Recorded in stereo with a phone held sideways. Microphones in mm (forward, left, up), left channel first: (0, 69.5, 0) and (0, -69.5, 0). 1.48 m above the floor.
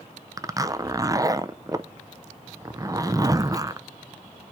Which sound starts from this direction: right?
A zipper, at 0.4 s.